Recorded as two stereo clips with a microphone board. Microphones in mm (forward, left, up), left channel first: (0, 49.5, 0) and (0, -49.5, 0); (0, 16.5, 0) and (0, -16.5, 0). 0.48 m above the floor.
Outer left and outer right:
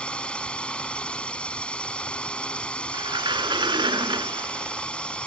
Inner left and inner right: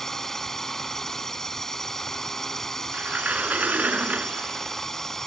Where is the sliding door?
55° right (ahead or behind).